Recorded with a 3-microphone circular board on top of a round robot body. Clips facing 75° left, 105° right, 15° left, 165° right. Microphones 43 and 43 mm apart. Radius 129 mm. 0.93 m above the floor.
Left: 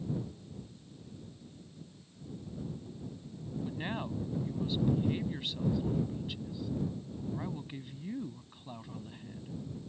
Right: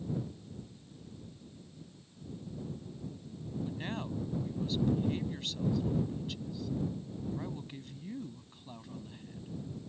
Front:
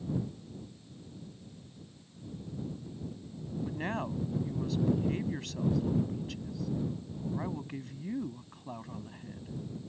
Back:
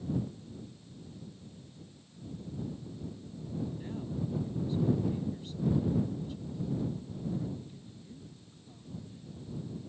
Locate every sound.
3.6 s a woman speaking: 5° right